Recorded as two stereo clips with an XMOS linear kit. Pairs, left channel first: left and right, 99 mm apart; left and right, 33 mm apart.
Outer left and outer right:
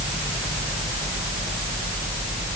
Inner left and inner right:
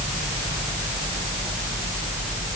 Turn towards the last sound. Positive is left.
No sound to turn to.